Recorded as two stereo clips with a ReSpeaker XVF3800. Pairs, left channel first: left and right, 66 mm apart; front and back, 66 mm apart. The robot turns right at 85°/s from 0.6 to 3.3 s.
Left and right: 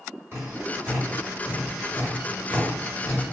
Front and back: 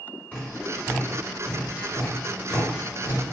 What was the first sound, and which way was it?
Tapping, 60° right.